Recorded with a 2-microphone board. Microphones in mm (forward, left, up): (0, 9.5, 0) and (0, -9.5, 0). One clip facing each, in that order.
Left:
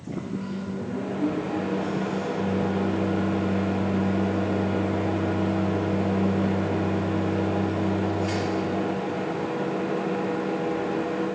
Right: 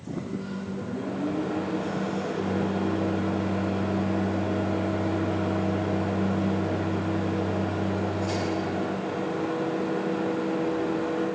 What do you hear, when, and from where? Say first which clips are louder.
0.1 s a microwave: left 1 dB; 60° left (ahead or behind), 4 m